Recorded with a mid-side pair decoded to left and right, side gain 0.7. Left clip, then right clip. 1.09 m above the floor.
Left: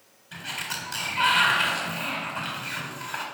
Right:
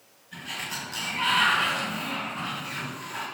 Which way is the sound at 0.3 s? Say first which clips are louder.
Left 1 dB; 50° left.